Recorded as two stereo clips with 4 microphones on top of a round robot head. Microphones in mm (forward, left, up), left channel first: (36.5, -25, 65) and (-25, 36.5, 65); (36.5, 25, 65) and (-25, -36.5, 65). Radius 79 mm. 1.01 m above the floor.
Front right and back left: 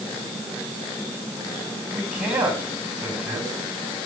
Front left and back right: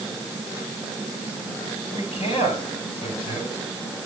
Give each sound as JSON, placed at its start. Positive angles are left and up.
{"t": 1.9, "sound": "a man speaking", "azimuth_deg": 60, "distance_m": 8.0}